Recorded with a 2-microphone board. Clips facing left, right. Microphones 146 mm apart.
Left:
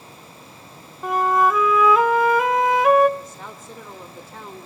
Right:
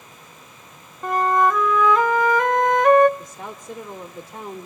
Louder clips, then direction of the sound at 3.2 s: Right 2 dB; 15° right (ahead or behind).